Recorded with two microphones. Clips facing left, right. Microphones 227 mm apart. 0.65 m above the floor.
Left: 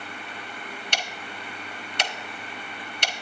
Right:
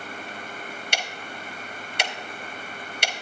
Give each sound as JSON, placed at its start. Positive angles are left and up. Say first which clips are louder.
{"t": 0.9, "sound": "ticking", "louder": "right 1 dB", "side_deg": -10, "distance_m": 1.2}